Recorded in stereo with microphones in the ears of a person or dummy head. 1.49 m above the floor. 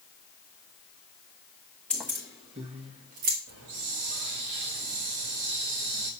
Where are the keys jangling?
5° left (ahead or behind), 0.7 m; by 3.4 s 40° right (ahead or behind), 1.2 m.